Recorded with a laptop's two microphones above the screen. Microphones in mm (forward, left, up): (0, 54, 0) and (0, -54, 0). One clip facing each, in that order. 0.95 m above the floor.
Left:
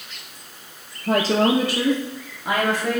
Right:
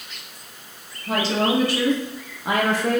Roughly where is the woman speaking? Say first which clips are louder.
Left 3 dB; left.